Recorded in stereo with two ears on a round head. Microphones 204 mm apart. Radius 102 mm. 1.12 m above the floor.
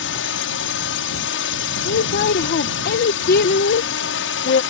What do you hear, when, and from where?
0.0 s a drone: 55° left (ahead or behind)
1.9 s a woman speaking: 45° left (ahead or behind)